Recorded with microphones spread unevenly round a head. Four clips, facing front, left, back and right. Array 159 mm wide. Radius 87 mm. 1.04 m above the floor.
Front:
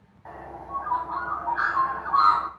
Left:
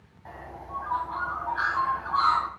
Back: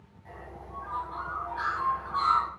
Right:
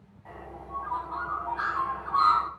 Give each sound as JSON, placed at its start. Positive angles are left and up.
{"t": 0.2, "sound": "a bird", "azimuth_deg": 20, "distance_m": 2.5}